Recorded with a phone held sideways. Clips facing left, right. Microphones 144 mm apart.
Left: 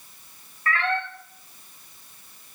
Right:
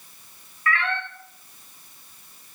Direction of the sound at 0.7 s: 35° left (ahead or behind).